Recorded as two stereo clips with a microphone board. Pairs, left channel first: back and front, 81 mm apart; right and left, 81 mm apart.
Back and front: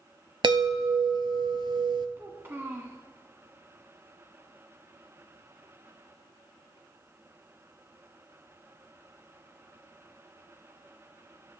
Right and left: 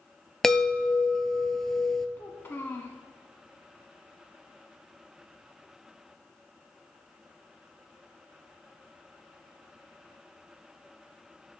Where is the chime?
5° right, 0.6 m.